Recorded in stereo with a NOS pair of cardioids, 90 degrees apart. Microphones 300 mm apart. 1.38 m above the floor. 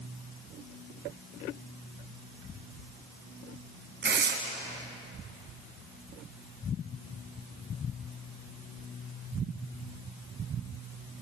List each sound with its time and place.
4.0 s tearing paper: 35° right, 3.5 m